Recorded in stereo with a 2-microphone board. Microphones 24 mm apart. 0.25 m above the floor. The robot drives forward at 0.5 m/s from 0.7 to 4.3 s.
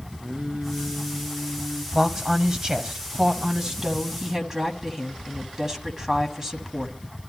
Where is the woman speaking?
30° right (ahead or behind), 1.1 m; by 7.0 s 25° right (ahead or behind), 1.4 m.